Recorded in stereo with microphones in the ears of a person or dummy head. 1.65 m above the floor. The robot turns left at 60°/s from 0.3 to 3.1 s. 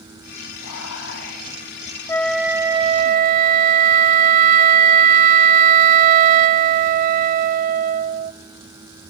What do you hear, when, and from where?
0.6 s whispering: 90° left, 9.5 m; by 1.6 s 30° left, 9.5 m
2.1 s a flute: 15° left, 0.7 m; by 8.3 s 45° right, 0.7 m